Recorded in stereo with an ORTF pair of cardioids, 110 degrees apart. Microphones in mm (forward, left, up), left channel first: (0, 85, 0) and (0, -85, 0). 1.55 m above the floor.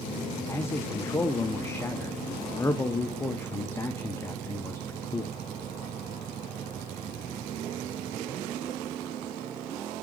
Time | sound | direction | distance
0.5 | a man speaking | 15° left | 0.9 m